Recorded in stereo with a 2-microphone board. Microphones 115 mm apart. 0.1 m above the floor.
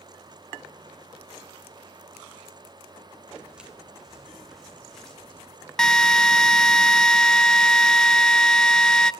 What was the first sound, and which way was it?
Footsteps, 10° right (ahead or behind).